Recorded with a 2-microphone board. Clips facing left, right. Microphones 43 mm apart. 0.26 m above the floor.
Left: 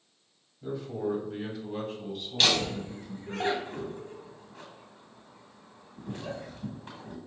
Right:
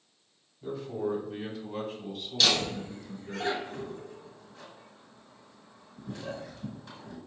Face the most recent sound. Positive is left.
turn(degrees=40)  # may be behind; listen again after turning